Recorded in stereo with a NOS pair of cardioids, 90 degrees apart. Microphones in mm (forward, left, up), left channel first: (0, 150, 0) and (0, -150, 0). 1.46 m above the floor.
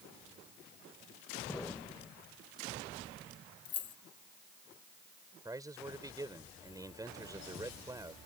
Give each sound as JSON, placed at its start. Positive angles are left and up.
{"t": 1.5, "sound": "an explosion", "azimuth_deg": 5}
{"t": 3.6, "sound": "keys jangling", "azimuth_deg": 60}
{"t": 5.5, "sound": "a man speaking", "azimuth_deg": -10}